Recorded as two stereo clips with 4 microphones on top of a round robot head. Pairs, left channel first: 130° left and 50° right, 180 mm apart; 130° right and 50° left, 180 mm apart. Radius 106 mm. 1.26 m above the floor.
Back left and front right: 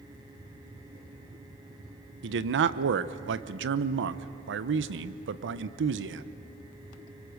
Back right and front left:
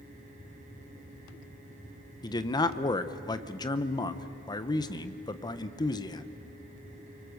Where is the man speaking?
65° right, 0.9 m.